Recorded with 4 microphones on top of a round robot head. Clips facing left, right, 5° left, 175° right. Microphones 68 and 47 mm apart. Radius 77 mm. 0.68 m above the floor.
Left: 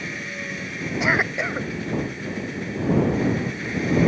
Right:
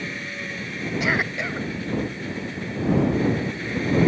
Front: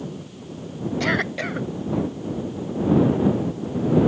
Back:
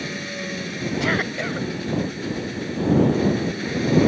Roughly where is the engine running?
Behind.